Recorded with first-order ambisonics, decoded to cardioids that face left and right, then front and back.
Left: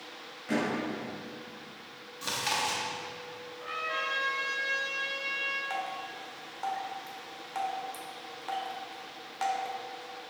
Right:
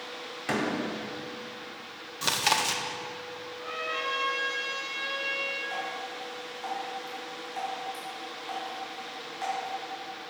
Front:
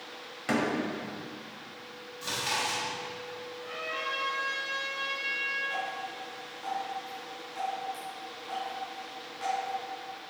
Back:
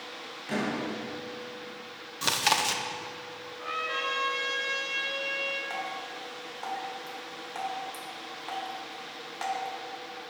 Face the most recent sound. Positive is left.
turn(degrees=130)